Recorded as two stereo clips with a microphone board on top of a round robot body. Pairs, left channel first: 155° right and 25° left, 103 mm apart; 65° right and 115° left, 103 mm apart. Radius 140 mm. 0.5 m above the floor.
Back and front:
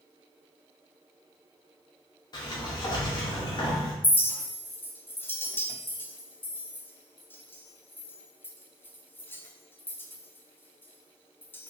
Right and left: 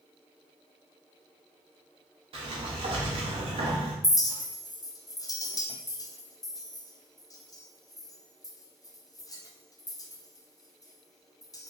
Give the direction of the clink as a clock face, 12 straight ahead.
3 o'clock.